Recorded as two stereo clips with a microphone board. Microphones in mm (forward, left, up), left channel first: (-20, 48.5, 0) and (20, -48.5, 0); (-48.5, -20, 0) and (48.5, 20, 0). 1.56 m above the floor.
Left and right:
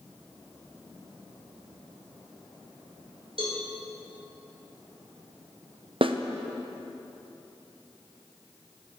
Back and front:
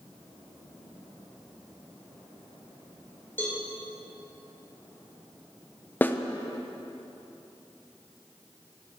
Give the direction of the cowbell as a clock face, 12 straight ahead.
3 o'clock.